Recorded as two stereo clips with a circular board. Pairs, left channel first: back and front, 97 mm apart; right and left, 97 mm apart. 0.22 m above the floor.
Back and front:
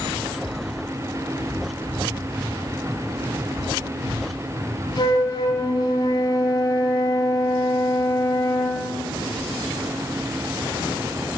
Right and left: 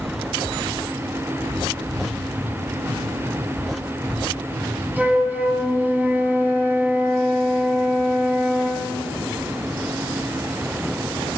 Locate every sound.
5.0 s a flute: 160° left, 1.3 m